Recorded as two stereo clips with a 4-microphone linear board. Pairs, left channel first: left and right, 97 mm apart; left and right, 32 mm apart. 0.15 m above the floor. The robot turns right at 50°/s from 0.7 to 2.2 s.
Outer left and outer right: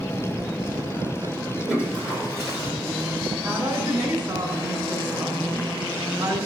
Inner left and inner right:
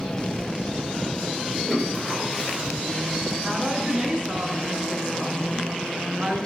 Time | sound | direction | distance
1.7 | a toilet flushing | centre (ahead or behind) | 4 m
3.4 | a woman speaking | 40° right (ahead or behind) | 2.5 m